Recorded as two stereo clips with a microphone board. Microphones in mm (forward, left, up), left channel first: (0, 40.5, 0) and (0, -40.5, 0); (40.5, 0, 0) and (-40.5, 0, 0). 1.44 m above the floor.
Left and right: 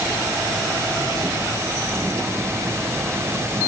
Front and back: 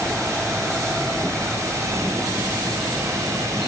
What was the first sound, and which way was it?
Only background noise.